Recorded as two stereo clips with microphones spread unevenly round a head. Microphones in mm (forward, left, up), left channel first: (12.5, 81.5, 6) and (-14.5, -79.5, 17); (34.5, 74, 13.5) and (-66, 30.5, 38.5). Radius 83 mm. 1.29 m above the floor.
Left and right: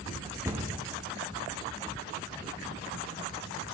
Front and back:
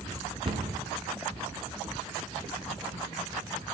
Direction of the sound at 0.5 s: 170° right.